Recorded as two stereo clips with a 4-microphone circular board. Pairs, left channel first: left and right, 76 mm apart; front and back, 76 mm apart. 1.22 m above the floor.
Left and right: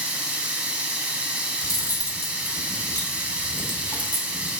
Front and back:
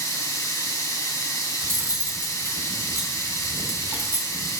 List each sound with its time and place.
0.0 s running water: 20° right, 1.7 m
1.6 s cutlery clinking: 125° left, 2 m